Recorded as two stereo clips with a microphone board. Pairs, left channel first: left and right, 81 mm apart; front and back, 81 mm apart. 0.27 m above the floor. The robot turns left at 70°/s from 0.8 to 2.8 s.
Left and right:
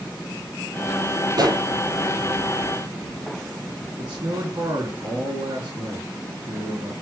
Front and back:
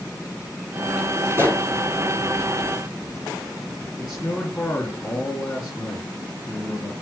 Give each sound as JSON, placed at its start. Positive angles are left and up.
{"t": 1.3, "sound": "a pop", "azimuth_deg": -115, "distance_m": 4.5}
{"t": 4.0, "sound": "a man speaking", "azimuth_deg": -70, "distance_m": 2.5}